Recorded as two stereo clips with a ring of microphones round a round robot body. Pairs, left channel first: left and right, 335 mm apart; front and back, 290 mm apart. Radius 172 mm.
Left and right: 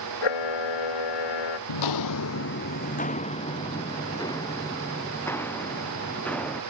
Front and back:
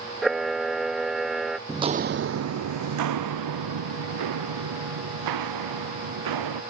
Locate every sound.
0.2 s a camera shutter: 90° left
1.7 s footsteps: 95° left; by 6.6 s 175° left